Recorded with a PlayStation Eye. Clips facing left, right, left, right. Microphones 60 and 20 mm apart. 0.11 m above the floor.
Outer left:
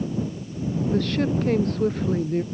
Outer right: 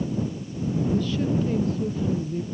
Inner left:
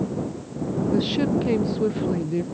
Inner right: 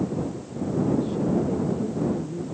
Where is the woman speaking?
60° left (ahead or behind).